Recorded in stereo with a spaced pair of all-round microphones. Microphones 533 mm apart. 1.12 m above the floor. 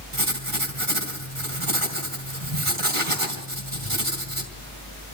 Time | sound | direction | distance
0.1 | writing | 65° right (ahead or behind) | 4 m